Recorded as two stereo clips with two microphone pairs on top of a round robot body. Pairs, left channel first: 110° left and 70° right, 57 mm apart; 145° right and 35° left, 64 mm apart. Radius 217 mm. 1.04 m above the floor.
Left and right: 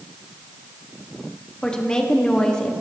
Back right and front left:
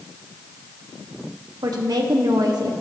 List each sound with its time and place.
1.6 s a woman speaking: 35° left, 2.0 m